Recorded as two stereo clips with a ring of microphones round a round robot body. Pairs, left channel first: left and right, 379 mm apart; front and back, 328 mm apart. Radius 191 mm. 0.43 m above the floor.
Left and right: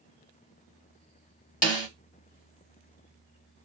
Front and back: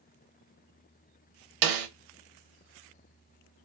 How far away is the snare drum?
About 0.7 m.